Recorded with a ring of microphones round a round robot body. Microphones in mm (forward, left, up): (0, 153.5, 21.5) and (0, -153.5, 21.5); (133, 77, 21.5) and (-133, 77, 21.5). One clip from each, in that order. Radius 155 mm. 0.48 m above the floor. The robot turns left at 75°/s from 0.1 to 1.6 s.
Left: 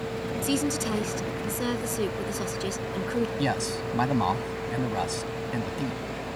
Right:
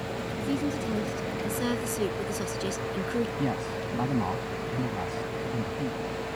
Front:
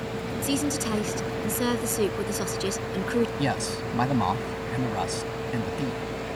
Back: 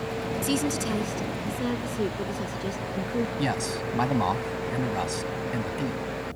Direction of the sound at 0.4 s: 95° left.